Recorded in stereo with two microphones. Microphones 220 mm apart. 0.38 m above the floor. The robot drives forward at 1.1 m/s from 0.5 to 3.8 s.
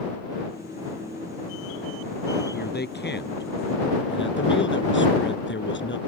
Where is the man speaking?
45° left (ahead or behind); by 6.0 s 55° left (ahead or behind).